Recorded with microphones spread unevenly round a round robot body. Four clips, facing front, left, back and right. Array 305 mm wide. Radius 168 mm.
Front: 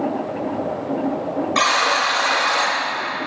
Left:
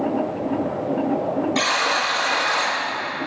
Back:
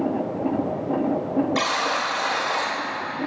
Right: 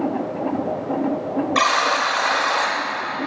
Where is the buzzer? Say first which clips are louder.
Right 3 dB, front 5 dB; 40° right, 4 m.